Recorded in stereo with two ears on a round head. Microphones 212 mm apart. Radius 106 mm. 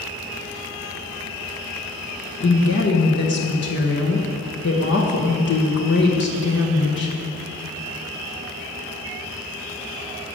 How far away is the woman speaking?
About 1.3 m.